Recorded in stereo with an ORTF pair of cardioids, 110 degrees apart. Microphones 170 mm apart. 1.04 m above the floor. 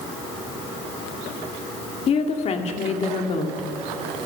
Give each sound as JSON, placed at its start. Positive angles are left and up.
{"t": 2.1, "sound": "a woman speaking", "azimuth_deg": 40, "distance_m": 2.0}